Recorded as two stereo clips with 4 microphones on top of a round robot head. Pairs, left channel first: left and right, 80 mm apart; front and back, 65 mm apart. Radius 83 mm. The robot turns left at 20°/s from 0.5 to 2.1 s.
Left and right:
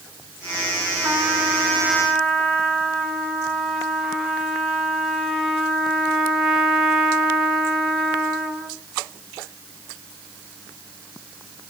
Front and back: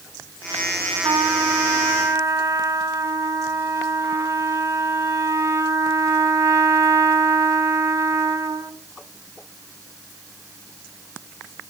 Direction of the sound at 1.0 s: 155° right.